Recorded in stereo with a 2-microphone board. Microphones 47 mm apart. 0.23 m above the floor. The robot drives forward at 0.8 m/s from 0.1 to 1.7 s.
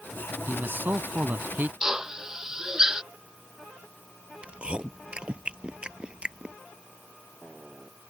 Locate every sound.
0.5 s a man speaking: 45° right (ahead or behind); by 1.7 s 40° right (ahead or behind)
1.8 s a drill: 10° right (ahead or behind)
4.4 s chewing: 20° right (ahead or behind)